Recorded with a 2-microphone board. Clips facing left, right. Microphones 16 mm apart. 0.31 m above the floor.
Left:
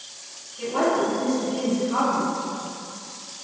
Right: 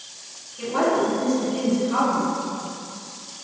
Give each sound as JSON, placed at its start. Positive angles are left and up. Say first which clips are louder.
{"t": 0.6, "sound": "a woman speaking", "louder": "right 1 dB", "side_deg": -25, "distance_m": 1.4}